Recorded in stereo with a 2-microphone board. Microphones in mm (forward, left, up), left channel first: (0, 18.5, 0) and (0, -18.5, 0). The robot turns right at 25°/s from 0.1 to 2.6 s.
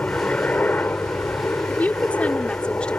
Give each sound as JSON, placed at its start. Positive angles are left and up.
{"t": 0.0, "sound": "a helicopter", "azimuth_deg": 50}
{"t": 1.7, "sound": "a woman speaking", "side_deg": 50}